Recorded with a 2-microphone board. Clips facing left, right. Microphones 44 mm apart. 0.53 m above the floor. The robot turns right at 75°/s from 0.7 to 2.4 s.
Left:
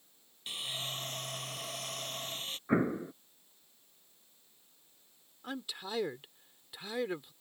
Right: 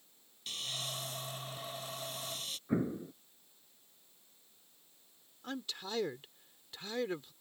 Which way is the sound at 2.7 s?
60° left (ahead or behind).